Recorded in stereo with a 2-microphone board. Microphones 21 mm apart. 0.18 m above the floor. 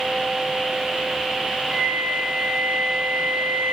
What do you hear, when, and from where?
1.7 s a flute: 60° right (ahead or behind), 7.5 m